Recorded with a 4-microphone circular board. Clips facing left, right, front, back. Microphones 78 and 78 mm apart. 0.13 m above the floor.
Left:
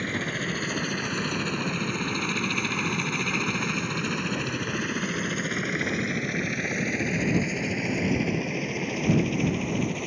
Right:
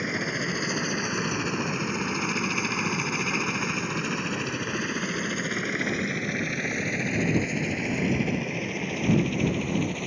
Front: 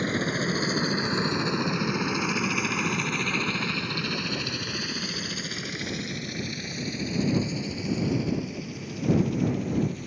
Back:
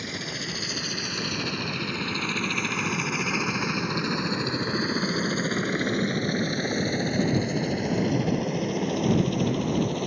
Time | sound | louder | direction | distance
0.0 | a helicopter | right 1 dB, front 7 dB | 10° right | ?